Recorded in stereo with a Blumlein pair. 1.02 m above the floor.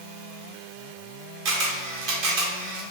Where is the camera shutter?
45° right, 1.1 m.